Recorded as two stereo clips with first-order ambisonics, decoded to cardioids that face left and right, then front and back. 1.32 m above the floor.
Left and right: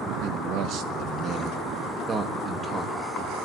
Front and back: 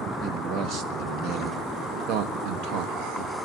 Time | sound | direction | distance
0.2 | a man speaking | 130° right | 1.8 m